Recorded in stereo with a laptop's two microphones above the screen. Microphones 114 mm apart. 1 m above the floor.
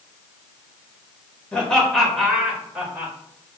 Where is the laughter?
10° left (ahead or behind), 1.9 m; by 3.1 s 20° right (ahead or behind), 2 m.